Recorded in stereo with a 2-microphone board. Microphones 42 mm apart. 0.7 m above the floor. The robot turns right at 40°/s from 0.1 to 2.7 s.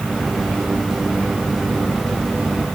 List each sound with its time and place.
Only background noise.